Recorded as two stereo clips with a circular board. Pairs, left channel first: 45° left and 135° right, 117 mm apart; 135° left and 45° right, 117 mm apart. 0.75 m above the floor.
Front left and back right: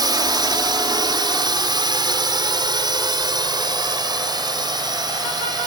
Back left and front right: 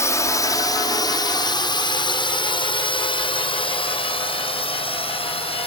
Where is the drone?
170° right; by 5.7 s 170° left.